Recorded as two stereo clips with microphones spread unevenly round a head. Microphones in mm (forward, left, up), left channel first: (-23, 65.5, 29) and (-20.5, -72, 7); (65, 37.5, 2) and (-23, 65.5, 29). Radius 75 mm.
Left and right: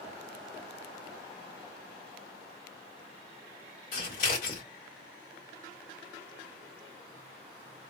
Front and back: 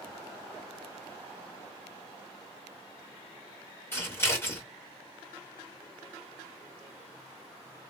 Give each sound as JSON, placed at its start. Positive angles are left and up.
{"t": 3.9, "sound": "scissors", "azimuth_deg": 50, "distance_m": 1.5}